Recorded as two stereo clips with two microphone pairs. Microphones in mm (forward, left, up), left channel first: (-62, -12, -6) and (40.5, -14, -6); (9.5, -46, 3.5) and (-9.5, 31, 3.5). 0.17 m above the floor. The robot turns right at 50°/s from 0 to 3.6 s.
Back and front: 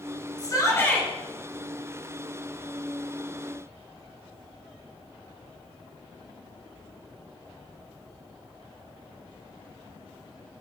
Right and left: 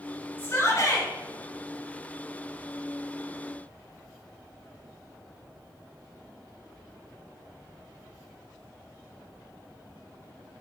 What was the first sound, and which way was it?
A shout, 140° right.